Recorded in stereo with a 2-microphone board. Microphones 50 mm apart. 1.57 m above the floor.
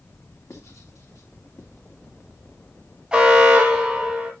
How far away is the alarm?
About 2.5 m.